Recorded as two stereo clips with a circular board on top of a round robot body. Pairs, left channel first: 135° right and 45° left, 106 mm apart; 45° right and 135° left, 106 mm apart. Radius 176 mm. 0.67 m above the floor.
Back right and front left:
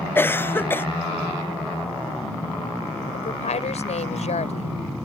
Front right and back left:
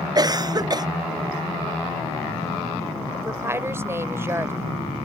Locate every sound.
0.1 s a cough: 165° left
3.1 s a woman speaking: 155° right